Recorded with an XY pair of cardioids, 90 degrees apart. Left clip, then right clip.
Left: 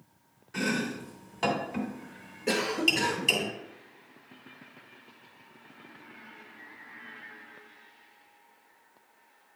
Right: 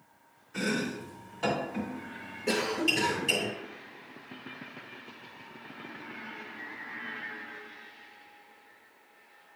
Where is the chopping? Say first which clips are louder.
Left 1 dB; 60° left, 2.5 m.